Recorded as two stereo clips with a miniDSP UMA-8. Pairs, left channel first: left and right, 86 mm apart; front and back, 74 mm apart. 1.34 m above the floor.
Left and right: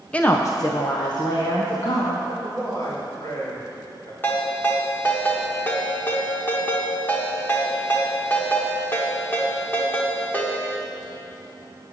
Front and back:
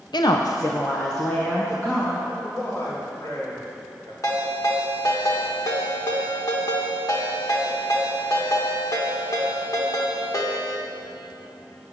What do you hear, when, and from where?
0.1 s a woman speaking: 15° left, 0.5 m; by 2.1 s 70° left, 1.7 m
2.2 s a man speaking: 45° left, 3 m
4.2 s a ringtone: 25° left, 1.5 m